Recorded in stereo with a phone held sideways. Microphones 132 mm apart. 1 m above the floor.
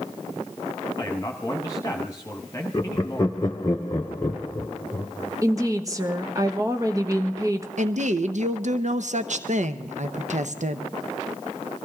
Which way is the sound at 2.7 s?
25° left (ahead or behind).